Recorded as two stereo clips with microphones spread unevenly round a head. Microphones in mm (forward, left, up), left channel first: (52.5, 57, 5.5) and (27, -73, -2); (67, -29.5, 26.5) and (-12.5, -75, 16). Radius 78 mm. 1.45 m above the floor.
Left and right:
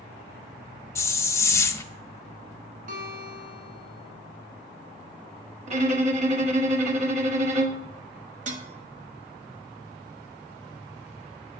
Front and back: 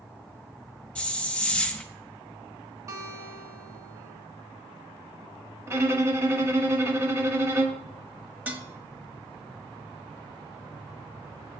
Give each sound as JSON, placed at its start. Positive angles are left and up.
{"t": 0.9, "sound": "a hiss", "azimuth_deg": 70, "distance_m": 0.5}
{"t": 2.9, "sound": "a guitar", "azimuth_deg": -95, "distance_m": 2.5}
{"t": 5.7, "sound": "a violin", "azimuth_deg": -90, "distance_m": 1.2}
{"t": 8.5, "sound": "dishes clattering", "azimuth_deg": -75, "distance_m": 1.2}